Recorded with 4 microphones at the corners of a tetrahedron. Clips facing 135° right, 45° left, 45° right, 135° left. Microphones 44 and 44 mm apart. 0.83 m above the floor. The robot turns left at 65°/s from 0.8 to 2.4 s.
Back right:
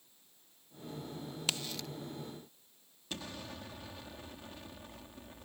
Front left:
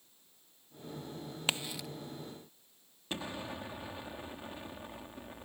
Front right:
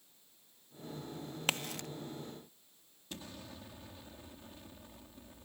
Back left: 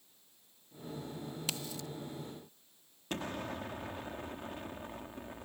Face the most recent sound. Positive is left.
turn(degrees=110)